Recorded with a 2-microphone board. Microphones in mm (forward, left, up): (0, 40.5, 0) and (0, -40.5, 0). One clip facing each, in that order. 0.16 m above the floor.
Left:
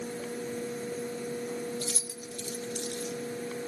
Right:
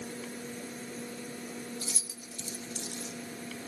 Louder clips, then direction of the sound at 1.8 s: Left 6 dB; 55° left (ahead or behind).